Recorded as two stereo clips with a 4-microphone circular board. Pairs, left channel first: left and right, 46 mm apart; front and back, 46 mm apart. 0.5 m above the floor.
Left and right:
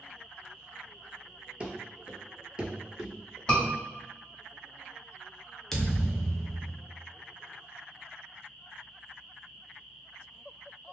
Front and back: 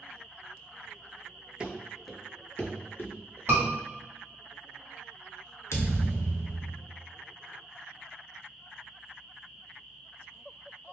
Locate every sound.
1.6 s running footsteps: 130° right, 0.5 m; by 3.4 s 5° right, 0.8 m
3.5 s a scream: 160° left, 1.7 m
5.7 s a thud: 10° left, 0.6 m